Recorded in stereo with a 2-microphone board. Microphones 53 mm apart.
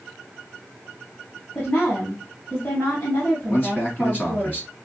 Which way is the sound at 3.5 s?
35° left (ahead or behind).